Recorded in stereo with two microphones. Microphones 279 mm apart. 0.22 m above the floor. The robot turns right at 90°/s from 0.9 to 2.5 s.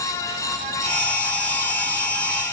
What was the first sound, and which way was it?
Only background noise.